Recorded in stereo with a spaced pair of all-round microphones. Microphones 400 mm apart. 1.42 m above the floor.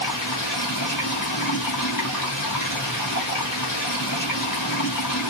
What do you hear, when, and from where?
0.0 s running water: 50° left (ahead or behind), 1.3 m